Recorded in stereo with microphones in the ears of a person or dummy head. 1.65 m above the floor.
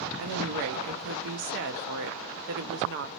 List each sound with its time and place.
0.2 s a woman speaking: 60° right (ahead or behind), 0.7 m